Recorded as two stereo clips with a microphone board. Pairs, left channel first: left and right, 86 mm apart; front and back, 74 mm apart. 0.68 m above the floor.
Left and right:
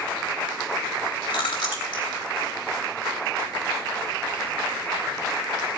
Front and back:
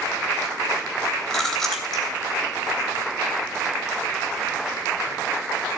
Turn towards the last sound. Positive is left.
turn(degrees=85)